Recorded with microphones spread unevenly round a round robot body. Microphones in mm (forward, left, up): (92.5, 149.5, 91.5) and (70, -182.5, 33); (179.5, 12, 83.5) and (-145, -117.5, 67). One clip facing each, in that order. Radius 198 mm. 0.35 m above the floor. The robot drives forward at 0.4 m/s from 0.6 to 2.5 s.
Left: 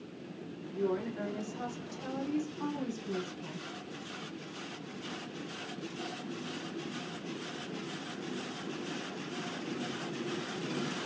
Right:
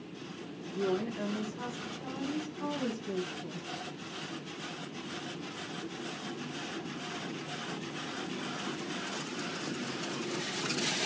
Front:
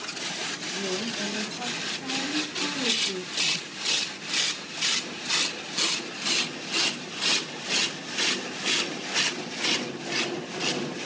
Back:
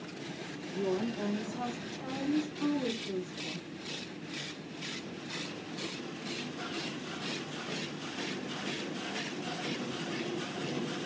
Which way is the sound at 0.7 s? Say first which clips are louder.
Right 1 dB, back 1 dB; 60° left.